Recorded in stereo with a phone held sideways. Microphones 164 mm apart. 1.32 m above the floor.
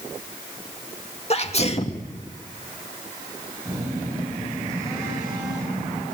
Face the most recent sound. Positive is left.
turn(degrees=-20)  # may be behind; listen again after turning